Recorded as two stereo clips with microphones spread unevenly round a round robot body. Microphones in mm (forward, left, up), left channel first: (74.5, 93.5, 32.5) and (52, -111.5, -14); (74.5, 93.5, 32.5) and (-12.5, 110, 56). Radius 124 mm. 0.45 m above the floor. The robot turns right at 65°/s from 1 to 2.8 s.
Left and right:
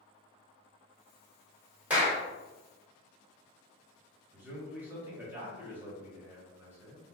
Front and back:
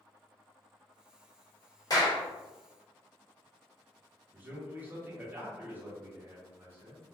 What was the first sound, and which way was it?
A clap, 20° right.